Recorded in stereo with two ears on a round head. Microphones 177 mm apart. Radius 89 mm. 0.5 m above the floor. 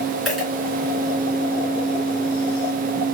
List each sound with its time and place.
0.2 s a dropped coin: centre (ahead or behind), 3 m